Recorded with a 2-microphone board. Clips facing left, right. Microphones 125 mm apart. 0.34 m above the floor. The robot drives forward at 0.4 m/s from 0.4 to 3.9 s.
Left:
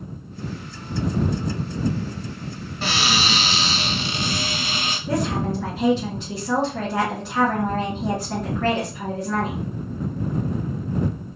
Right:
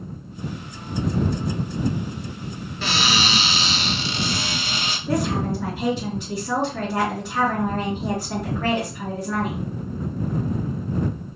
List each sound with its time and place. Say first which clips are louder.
2.8 s a cupboard door: even; 40° left (ahead or behind), 1.2 m; by 5.0 s 45° left (ahead or behind), 1.1 m
5.1 s a woman speaking: right 1 dB; 5° left (ahead or behind), 2.5 m